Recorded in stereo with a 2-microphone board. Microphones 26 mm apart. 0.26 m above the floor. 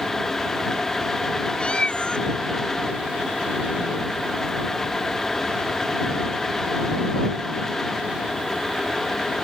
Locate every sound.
1.6 s a cat meowing: 35° left (ahead or behind)